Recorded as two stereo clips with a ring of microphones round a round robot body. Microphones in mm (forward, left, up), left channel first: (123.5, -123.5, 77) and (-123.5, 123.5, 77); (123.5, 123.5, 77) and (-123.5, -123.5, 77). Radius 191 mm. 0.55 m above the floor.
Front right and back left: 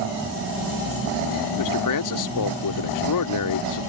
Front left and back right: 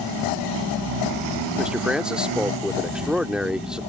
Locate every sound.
1.6 s a man speaking: 50° right